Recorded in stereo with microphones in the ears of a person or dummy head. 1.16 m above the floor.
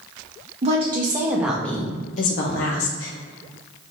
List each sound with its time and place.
0.6 s a woman speaking: 30° right (ahead or behind), 0.9 m; by 3.1 s 75° left (ahead or behind), 0.8 m